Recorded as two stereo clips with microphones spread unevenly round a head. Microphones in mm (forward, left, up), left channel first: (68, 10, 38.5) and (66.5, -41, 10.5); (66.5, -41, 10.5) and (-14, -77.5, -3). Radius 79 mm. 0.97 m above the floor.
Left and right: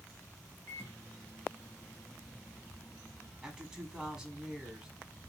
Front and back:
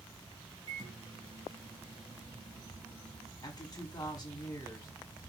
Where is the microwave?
160° left, 0.7 m.